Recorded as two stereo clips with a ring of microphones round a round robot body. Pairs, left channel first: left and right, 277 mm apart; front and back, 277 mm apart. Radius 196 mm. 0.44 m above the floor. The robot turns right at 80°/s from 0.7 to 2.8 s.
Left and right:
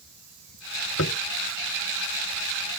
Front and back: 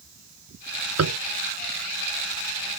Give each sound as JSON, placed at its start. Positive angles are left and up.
{"t": 1.0, "sound": "tapping", "azimuth_deg": 150}